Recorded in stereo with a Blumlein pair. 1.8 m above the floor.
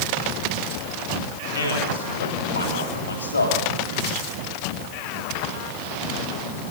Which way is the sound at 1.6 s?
70° left.